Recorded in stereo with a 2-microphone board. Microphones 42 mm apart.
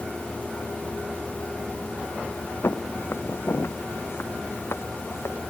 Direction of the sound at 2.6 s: 85° left.